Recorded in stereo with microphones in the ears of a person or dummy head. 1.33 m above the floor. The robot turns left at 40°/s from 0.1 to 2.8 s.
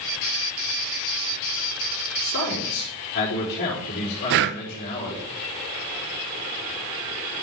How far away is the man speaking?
About 4 m.